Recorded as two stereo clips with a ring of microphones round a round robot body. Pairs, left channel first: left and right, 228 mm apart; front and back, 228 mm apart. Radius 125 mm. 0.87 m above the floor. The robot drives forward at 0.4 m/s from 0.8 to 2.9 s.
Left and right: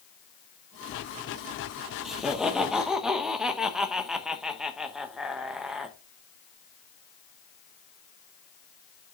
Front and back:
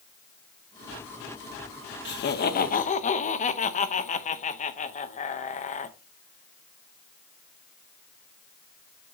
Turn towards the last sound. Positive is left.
turn(degrees=-5)